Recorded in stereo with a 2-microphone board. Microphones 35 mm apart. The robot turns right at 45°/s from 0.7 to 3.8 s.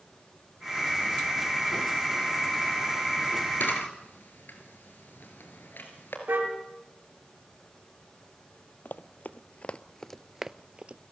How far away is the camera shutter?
About 4 m.